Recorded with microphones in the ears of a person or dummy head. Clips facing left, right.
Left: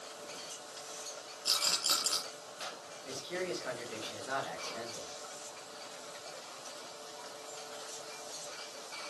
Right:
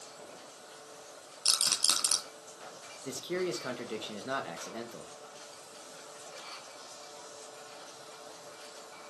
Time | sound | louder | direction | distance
1.4 | a rattle | left 1 dB | 60° right (ahead or behind) | 2.5 m
3.0 | a man speaking | right 5 dB | 50° right (ahead or behind) | 1.9 m